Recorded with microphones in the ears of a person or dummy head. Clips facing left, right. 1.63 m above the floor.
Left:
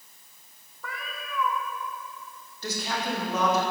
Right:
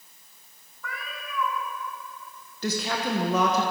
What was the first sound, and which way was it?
A cat meowing, 25° left (ahead or behind).